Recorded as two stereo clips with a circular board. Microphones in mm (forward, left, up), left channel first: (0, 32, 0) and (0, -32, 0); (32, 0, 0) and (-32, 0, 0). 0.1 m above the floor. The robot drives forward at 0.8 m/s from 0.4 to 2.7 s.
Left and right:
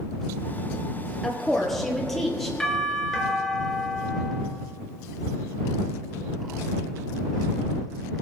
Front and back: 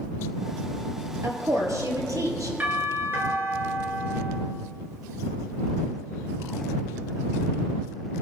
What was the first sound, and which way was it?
A woman speaking, 175° left.